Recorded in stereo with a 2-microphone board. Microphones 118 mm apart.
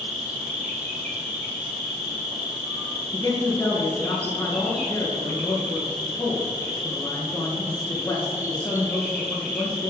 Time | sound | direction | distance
0.0 | an insect | 70° right (ahead or behind) | 1.1 m
3.1 | a man speaking | 25° left (ahead or behind) | 3 m